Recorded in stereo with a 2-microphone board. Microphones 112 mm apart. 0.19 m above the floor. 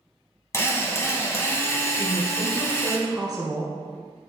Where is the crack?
I don't hear a crack.